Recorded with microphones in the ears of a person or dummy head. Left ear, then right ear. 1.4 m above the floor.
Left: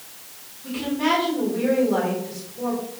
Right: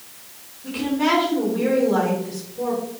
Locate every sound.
0.6 s a woman speaking: centre (ahead or behind), 4 m